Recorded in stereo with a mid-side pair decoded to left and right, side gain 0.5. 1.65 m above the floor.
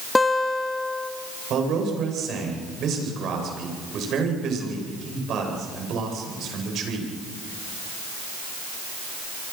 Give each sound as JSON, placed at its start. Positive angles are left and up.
{"t": 0.1, "sound": "a guitar", "azimuth_deg": 20, "distance_m": 2.5}
{"t": 1.5, "sound": "a man speaking", "azimuth_deg": -60, "distance_m": 9.0}